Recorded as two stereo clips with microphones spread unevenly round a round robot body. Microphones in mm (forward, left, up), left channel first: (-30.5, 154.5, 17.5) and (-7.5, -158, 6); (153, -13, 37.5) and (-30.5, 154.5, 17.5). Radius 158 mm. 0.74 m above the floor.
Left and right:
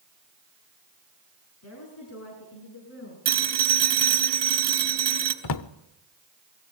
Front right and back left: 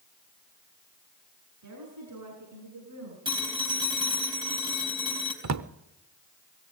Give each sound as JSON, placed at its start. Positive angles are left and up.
{"t": 1.6, "sound": "a woman speaking", "azimuth_deg": 140, "distance_m": 9.0}
{"t": 3.2, "sound": "a phone ringing", "azimuth_deg": -145, "distance_m": 4.0}
{"t": 5.4, "sound": "a drawer", "azimuth_deg": 120, "distance_m": 0.9}